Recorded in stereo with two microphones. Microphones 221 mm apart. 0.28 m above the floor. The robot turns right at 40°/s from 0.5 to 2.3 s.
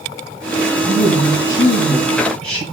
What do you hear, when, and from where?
0.8 s a woman speaking: 120° left, 4.5 m; by 2.6 s 175° left, 4.5 m